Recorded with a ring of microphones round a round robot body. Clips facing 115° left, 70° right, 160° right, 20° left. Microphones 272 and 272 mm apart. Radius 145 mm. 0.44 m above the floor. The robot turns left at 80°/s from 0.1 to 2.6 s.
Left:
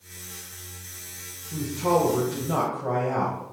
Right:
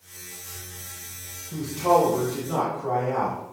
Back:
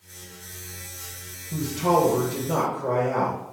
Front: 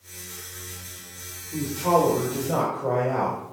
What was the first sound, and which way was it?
A man speaking, 155° right.